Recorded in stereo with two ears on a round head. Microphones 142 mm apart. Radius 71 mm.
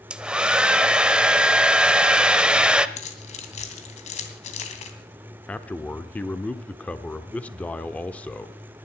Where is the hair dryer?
5° right (ahead or behind), 0.6 m.